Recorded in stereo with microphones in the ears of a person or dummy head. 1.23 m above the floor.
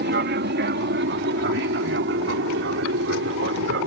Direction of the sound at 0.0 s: 50° right (ahead or behind).